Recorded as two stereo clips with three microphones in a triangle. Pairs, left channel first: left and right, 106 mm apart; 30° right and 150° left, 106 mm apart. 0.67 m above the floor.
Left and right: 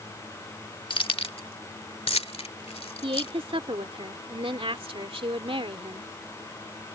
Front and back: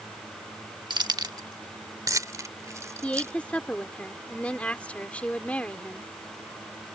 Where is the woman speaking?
105° right.